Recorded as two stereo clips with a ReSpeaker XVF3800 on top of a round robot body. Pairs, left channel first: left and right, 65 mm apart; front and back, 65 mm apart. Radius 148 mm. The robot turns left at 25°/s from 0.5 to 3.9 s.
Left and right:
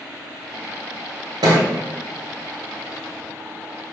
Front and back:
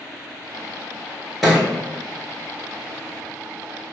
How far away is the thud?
About 0.9 m.